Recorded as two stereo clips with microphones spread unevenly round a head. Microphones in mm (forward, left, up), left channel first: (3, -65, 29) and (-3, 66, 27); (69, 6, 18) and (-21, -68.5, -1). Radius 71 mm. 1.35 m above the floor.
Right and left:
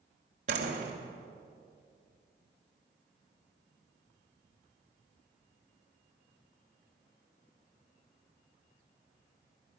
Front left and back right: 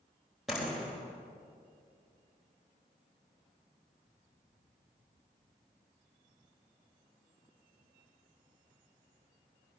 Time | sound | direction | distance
0.5 | a door slam | 130° left | 3.5 m